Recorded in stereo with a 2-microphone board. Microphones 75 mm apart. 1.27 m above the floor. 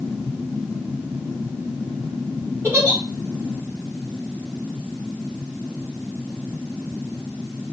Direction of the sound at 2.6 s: 35° right (ahead or behind).